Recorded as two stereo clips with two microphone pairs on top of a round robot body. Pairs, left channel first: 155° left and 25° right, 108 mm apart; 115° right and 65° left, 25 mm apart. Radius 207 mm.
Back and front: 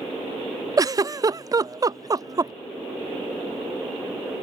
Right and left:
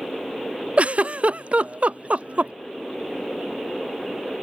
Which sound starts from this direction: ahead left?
A giggle, at 0.8 s.